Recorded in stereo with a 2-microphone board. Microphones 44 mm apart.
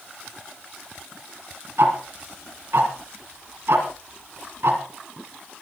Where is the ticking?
65° right (ahead or behind), 3 m.